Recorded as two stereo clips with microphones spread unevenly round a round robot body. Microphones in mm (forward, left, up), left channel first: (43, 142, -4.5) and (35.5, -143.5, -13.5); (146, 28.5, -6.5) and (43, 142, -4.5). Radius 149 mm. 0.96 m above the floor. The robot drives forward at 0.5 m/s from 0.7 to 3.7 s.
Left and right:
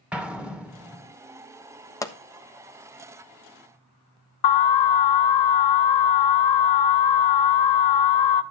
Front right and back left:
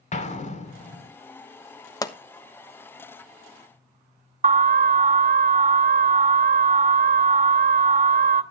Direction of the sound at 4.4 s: 90° left.